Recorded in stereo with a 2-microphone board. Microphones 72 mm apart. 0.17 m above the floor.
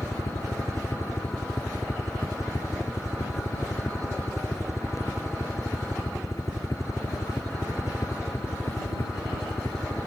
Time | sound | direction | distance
0.0 | a helicopter | 45° left (ahead or behind) | ?